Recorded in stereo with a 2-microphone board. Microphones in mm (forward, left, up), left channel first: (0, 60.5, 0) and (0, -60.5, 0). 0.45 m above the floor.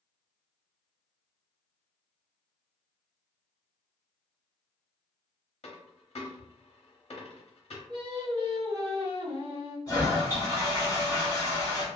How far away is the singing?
About 1.7 m.